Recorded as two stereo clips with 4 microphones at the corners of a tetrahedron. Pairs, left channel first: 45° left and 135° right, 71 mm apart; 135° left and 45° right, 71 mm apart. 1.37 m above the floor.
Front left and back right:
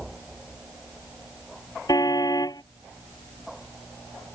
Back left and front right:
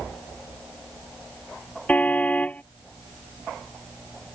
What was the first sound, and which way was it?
A car horn, 70° left.